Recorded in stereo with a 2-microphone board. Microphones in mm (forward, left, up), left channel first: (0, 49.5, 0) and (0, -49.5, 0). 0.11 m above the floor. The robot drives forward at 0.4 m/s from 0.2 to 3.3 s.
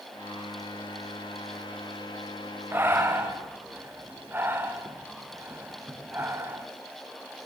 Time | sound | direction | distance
2.7 | breathing | 25° right (ahead or behind) | 3 m